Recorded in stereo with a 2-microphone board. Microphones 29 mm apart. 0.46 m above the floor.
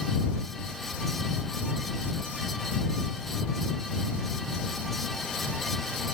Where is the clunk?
No clunk in this recording.